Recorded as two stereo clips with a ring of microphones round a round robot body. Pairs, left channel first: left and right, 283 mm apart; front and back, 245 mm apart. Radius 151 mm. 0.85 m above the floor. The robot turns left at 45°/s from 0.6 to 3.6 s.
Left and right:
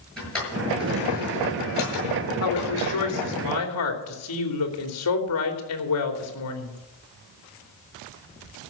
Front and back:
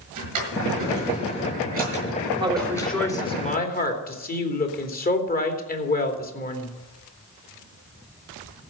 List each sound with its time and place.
0.2 s a drawer: 175° left, 8 m; by 3.4 s 50° left, 8 m
2.4 s a woman speaking: 110° left, 3 m; by 6.7 s 55° left, 3 m